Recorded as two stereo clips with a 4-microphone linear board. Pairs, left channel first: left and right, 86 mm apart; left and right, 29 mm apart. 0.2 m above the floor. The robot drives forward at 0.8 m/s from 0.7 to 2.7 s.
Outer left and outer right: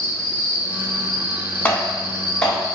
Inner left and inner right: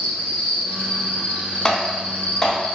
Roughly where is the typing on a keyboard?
Left.